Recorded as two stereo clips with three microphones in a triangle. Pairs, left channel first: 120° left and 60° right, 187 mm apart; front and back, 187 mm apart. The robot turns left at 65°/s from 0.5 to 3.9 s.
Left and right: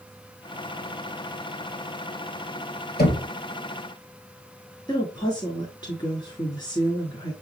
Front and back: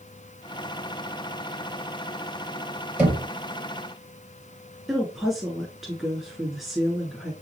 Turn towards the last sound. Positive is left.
turn(degrees=95)